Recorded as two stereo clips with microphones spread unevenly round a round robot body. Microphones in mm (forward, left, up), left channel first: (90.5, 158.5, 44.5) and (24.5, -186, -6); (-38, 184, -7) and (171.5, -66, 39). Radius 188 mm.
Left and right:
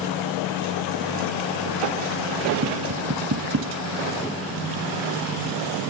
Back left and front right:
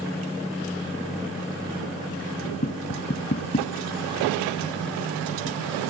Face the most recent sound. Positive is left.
turn(degrees=-160)